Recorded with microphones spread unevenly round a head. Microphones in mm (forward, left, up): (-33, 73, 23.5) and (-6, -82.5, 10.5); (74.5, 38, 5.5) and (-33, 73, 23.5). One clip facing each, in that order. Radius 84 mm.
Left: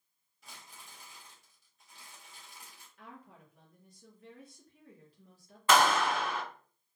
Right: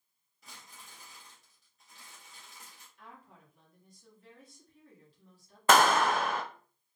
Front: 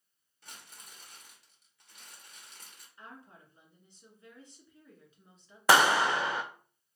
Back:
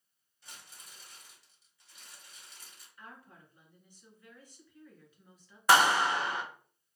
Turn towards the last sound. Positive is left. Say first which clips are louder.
# right 2 dB, front 1 dB
turn(degrees=-30)